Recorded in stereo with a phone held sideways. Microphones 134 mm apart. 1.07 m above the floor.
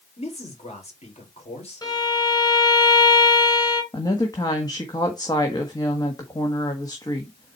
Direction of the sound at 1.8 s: 30° left (ahead or behind).